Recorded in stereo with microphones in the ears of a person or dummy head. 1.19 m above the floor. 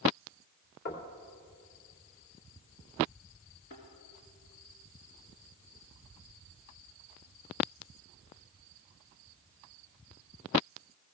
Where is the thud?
50° left (ahead or behind), 3 m.